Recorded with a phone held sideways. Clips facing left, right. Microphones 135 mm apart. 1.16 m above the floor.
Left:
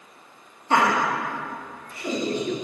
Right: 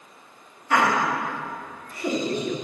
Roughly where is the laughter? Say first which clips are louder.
Left 1 dB; left.